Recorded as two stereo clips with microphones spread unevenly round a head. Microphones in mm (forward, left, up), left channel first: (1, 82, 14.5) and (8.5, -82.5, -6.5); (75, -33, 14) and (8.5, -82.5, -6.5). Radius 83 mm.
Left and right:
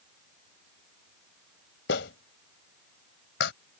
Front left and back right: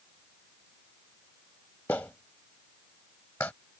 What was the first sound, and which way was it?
A clap, 115° left.